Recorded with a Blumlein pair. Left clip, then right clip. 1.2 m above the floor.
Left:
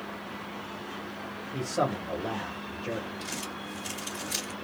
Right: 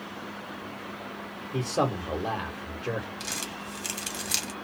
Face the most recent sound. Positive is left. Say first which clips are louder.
# right 2 dB
turn(degrees=-50)